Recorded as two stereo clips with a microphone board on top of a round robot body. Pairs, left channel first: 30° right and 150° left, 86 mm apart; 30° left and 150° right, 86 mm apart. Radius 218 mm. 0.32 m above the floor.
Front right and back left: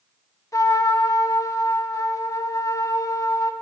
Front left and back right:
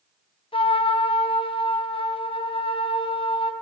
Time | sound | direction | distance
0.5 | a trumpet | 20° left | 1.6 m